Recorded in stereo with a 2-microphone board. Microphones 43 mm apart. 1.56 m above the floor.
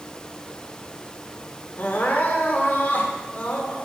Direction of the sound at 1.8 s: 45° left (ahead or behind).